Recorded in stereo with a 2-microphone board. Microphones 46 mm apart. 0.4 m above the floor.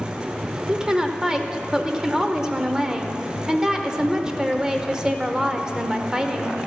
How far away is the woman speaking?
About 0.8 m.